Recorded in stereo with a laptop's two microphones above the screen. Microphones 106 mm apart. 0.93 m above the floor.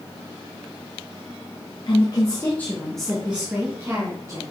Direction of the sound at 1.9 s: 45° left (ahead or behind).